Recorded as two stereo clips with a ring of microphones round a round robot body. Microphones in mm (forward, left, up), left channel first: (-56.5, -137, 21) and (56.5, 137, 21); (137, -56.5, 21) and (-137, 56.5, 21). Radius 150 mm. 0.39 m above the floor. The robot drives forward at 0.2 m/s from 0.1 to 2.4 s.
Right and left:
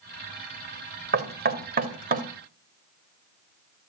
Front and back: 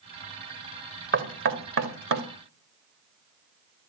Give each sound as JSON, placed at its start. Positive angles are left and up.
{"t": 1.1, "sound": "knocking", "azimuth_deg": 115, "distance_m": 1.6}